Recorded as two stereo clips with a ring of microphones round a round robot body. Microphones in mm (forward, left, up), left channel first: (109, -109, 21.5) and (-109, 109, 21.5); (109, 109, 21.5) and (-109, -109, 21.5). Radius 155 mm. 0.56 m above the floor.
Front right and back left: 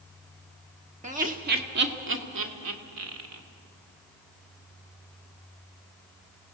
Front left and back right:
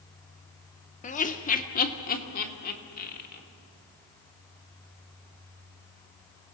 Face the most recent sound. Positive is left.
turn(degrees=105)